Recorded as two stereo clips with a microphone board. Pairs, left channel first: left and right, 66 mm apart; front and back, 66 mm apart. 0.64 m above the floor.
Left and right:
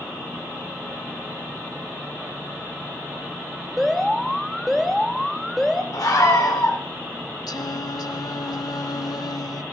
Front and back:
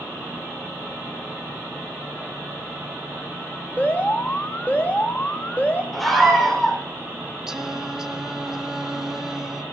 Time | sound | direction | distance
3.8 | an alarm | straight ahead | 0.8 m
5.9 | a scream | 85° left | 1.8 m
7.5 | singing | 100° left | 0.5 m